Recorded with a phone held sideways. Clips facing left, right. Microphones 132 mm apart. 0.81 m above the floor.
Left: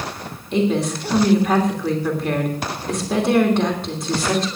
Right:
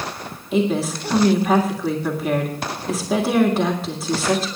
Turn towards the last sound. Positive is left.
turn(degrees=-5)  # may be behind; listen again after turning